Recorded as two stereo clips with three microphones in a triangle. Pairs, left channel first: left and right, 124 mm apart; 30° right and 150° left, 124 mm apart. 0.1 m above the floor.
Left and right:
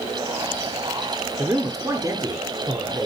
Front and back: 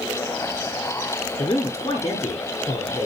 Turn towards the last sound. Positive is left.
turn(degrees=-45)